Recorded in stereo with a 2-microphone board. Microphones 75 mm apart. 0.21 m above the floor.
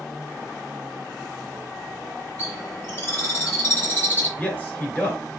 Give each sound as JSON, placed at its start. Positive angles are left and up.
{"t": 2.4, "sound": "a bird", "side_deg": 30, "distance_m": 2.5}
{"t": 4.4, "sound": "a man speaking", "side_deg": 15, "distance_m": 1.7}